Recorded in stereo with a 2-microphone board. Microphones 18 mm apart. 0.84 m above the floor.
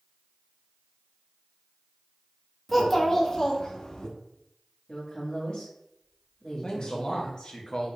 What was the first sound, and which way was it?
A child speaking, centre (ahead or behind).